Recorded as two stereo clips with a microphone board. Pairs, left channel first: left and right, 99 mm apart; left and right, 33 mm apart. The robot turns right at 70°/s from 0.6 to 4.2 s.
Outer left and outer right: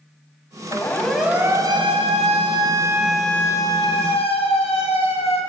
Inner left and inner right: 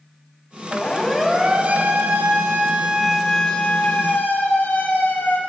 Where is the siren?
35° left (ahead or behind), 4.5 m; by 5.4 s 70° left (ahead or behind), 6 m.